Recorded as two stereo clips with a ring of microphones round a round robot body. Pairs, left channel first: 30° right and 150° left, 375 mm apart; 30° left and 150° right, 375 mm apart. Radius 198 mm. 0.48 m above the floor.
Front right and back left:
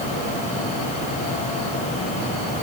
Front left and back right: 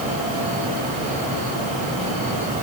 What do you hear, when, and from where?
Only background noise.